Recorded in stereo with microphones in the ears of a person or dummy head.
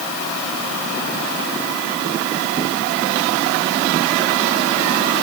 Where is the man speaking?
I don't hear a man speaking.